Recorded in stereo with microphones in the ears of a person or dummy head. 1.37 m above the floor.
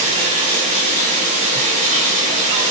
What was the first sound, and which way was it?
Running water, 40° right (ahead or behind).